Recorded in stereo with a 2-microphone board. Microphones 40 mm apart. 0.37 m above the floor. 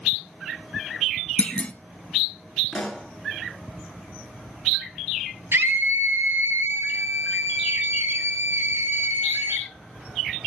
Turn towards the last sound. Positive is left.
turn(degrees=-75)  # may be behind; listen again after turning